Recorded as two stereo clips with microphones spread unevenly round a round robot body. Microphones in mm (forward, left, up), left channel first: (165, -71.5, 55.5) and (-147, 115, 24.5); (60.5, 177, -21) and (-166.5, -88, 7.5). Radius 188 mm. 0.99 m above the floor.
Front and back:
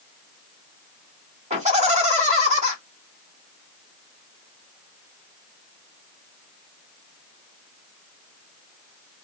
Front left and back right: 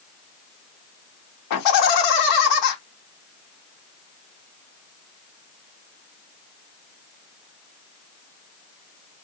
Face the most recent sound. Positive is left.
turn(degrees=80)